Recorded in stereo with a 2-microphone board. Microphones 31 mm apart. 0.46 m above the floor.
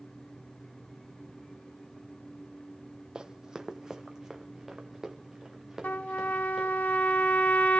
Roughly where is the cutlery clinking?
I don't hear cutlery clinking.